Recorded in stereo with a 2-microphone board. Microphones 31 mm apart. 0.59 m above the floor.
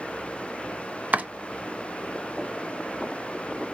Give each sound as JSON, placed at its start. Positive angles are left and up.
{"t": 1.1, "sound": "chopping", "side_deg": -65, "distance_m": 0.7}